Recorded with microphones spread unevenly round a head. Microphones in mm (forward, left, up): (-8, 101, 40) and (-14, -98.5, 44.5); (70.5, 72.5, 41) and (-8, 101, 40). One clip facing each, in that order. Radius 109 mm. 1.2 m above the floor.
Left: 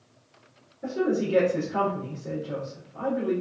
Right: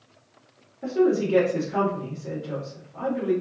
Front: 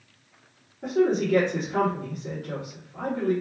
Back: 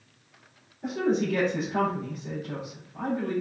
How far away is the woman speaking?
About 1.7 m.